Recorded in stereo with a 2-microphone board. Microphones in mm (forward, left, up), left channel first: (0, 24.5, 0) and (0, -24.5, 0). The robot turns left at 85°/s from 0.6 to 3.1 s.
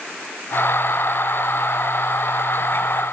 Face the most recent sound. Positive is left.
No sound to turn to.